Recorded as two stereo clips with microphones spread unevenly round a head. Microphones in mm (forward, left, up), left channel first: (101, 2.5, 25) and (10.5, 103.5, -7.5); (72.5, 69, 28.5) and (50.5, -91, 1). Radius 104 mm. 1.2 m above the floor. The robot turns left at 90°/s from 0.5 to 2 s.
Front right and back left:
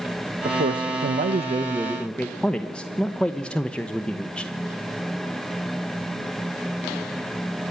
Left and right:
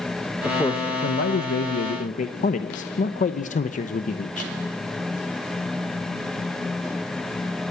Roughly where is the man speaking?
Behind.